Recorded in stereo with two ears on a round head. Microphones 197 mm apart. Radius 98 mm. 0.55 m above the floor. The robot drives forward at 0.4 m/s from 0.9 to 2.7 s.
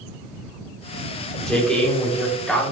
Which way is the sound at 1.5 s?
5° left (ahead or behind).